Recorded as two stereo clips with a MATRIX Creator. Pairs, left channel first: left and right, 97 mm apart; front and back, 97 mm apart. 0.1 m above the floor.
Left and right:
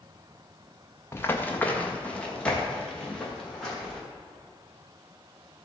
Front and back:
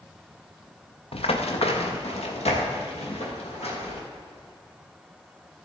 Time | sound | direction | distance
1.1 | running footsteps | 25° left | 1.4 m